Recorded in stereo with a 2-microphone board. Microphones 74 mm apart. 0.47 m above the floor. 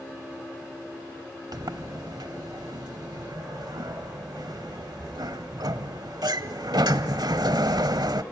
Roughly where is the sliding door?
Right.